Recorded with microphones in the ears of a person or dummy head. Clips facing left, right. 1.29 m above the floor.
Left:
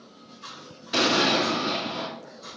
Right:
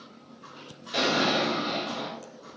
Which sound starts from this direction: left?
An explosion, at 0.9 s.